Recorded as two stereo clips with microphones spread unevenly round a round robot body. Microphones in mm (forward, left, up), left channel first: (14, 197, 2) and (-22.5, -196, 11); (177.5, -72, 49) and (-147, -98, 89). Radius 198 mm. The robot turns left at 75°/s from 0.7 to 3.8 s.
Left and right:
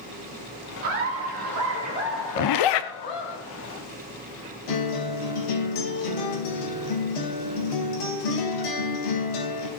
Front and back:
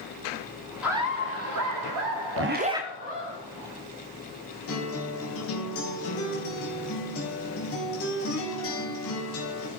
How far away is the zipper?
About 0.8 m.